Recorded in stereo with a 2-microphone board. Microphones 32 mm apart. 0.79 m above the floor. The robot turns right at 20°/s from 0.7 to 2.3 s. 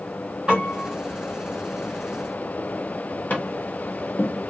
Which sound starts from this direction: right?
A piano, at 0.5 s.